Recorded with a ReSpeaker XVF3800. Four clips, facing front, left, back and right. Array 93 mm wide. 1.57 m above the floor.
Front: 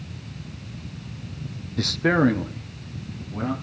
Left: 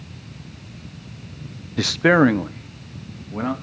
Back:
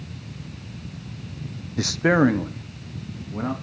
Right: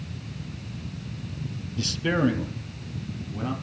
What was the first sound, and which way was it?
A man speaking, 100° left.